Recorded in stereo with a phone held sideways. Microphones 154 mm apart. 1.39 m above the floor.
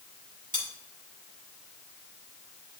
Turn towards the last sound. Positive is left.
turn(degrees=60)  # may be behind; listen again after turning